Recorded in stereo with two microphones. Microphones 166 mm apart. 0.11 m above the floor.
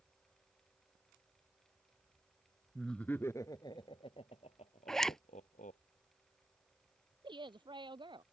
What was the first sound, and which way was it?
Laughter, centre (ahead or behind).